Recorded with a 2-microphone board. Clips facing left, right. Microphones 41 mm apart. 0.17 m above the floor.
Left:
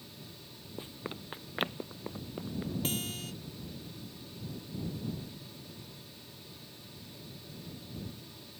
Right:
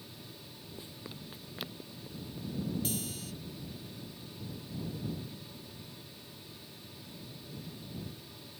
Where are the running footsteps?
30° left (ahead or behind); by 2.7 s 55° left (ahead or behind).